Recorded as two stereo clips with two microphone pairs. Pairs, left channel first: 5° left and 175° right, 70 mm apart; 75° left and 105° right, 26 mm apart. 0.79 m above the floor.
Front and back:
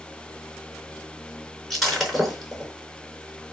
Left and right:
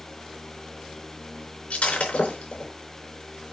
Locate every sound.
1.7 s breaking glass: 95° left, 4 m